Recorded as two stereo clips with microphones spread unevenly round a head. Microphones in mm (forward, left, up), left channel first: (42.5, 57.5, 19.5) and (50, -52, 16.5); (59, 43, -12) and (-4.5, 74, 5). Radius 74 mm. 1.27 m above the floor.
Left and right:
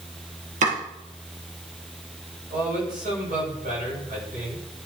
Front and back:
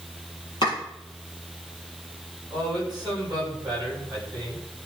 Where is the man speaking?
120° right, 7.5 m.